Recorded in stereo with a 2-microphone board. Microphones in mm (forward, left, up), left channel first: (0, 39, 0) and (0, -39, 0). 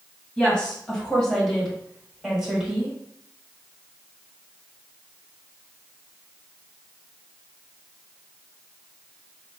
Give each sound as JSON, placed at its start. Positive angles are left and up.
{"t": 0.4, "sound": "a woman speaking", "side_deg": 10, "distance_m": 2.0}